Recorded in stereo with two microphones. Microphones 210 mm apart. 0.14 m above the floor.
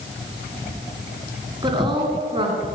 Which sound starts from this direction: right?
A woman speaking, at 1.6 s.